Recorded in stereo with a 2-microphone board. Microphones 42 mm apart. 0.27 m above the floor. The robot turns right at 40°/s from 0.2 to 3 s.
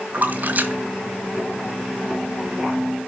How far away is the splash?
About 1.6 m.